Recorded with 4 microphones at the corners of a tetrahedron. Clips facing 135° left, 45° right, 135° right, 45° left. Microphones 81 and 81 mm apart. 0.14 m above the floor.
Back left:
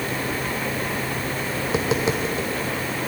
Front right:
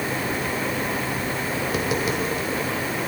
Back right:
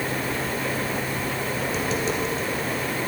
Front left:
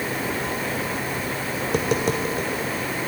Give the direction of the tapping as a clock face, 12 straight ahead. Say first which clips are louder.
Back left 3 dB, front left 5 dB; 10 o'clock.